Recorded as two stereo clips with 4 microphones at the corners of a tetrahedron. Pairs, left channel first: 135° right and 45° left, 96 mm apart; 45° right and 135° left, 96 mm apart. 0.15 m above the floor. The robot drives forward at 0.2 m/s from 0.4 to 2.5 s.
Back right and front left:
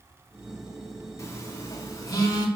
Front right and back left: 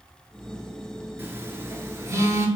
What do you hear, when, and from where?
1.2 s a phone buzzing: 175° right, 0.6 m